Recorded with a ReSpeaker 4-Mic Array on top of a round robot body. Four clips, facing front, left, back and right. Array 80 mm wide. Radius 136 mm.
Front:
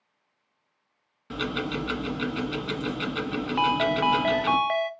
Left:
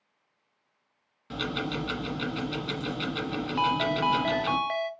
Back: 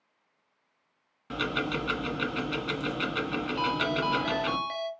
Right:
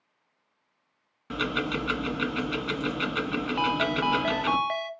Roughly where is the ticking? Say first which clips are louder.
Right 3 dB, front 1 dB; right.